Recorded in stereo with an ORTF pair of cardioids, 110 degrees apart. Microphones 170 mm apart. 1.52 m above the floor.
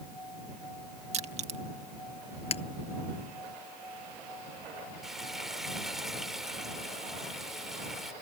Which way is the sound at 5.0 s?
Straight ahead.